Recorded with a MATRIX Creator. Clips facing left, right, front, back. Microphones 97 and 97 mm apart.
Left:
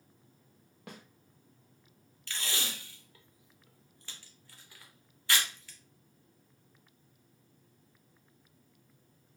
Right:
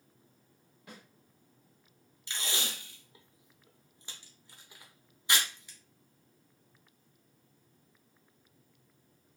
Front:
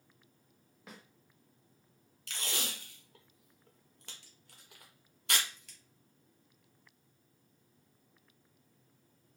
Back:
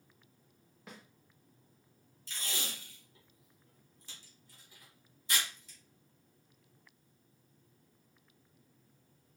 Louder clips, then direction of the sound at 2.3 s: Right 1 dB, front 2 dB; 20° right.